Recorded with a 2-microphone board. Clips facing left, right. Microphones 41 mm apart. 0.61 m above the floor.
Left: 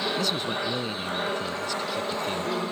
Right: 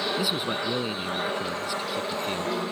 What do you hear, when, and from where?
0.2 s a man speaking: 10° right (ahead or behind)